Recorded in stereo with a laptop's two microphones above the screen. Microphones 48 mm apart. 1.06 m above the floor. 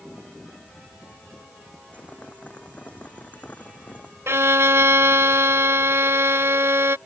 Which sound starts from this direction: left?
Boiling, at 1.9 s.